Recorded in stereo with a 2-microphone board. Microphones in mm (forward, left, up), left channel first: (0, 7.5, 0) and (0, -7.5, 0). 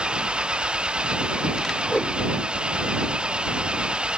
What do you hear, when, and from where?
0.0 s an engine running: 85° right
1.9 s a whoosh: 50° left (ahead or behind)